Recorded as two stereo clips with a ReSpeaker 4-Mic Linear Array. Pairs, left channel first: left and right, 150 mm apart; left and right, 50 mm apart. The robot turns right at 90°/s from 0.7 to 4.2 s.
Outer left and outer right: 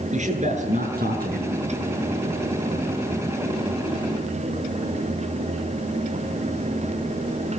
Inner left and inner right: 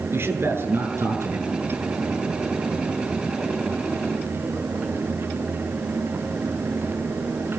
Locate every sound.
0.1 s a man speaking: 130° right, 8 m; by 1.5 s 55° right, 8 m